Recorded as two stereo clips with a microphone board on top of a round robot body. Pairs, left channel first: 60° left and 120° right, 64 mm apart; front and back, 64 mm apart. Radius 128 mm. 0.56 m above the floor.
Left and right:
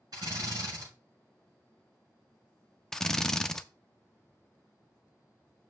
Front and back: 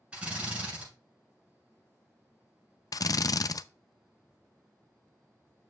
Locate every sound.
0.1 s a drill: 105° right, 6 m
2.9 s a drill: 20° right, 0.5 m